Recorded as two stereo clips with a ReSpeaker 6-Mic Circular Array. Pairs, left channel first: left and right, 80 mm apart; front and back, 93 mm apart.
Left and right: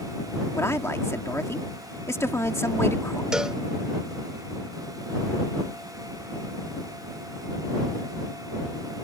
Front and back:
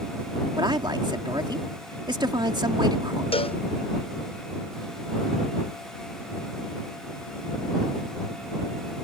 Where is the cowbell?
5° right.